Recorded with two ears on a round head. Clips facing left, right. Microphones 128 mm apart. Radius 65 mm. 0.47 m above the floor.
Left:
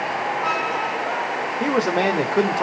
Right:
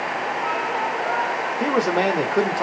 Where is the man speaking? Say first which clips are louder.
Even; centre (ahead or behind), 0.9 m.